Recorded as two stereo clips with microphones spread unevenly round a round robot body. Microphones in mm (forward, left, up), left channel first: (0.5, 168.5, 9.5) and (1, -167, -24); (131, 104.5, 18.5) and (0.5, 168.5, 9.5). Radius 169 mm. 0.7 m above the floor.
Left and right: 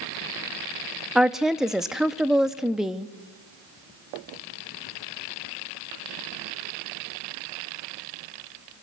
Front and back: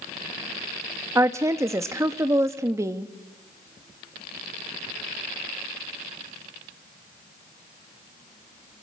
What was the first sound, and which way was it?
A woman speaking, 165° right.